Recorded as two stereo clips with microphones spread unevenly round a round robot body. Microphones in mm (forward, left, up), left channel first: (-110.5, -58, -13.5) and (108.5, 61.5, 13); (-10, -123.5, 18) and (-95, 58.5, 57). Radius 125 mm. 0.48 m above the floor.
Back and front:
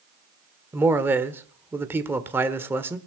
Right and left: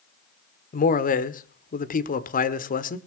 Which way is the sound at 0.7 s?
55° right.